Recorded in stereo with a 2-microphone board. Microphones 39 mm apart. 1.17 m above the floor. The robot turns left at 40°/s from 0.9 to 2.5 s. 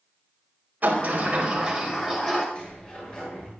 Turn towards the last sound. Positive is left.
turn(degrees=25)  # may be behind; listen again after turning